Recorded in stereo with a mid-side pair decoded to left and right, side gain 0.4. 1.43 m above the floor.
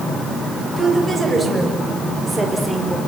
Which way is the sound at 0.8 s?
30° right.